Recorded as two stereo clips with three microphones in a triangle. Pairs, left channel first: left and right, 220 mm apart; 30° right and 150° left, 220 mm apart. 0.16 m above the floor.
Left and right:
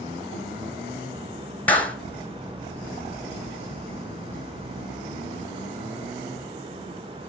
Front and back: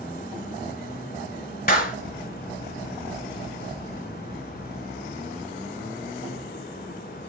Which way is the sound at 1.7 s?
10° left.